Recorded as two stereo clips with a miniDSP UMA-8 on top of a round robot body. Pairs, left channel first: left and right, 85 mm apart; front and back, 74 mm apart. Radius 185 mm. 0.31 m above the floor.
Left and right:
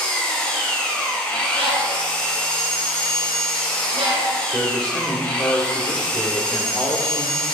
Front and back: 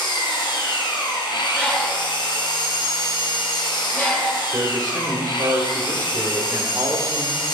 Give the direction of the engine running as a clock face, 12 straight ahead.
12 o'clock.